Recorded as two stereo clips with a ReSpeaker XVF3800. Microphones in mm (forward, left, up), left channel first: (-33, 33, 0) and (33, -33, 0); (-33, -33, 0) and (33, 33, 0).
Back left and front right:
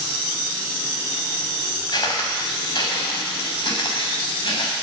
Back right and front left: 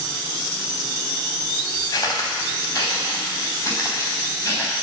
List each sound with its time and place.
1.9 s footsteps: 170° left, 4 m; by 4.7 s 160° left, 7.5 m